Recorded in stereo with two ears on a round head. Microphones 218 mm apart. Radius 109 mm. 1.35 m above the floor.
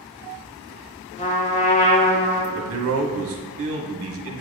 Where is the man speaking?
55° right (ahead or behind), 1.1 m.